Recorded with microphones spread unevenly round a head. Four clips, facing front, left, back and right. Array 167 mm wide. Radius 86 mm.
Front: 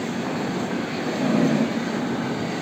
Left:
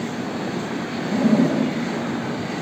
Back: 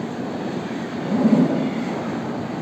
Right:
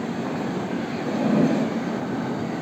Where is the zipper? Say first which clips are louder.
Left 3 dB, back 5 dB; 165° left, 3 m.